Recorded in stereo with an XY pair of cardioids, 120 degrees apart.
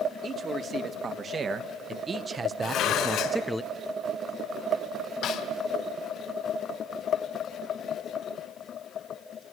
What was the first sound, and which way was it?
A man speaking, 40° right.